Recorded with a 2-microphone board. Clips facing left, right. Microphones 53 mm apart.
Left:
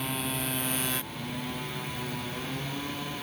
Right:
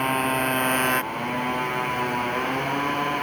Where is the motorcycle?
45° right (ahead or behind); by 3.2 s 50° right (ahead or behind).